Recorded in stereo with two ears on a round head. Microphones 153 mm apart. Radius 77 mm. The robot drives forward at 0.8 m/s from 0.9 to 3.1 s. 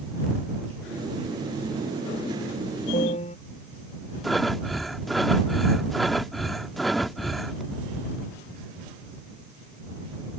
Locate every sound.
2.9 s a piano: 40° left (ahead or behind)
4.2 s breathing: centre (ahead or behind)